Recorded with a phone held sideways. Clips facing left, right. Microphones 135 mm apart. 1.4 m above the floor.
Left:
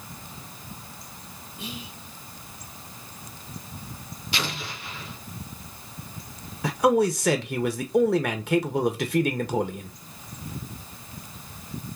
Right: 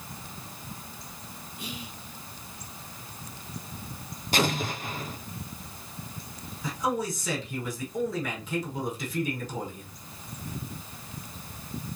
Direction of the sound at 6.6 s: 70° left (ahead or behind).